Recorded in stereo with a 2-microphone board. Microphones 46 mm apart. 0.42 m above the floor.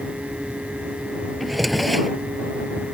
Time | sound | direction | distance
1.4 | a drawer | centre (ahead or behind) | ?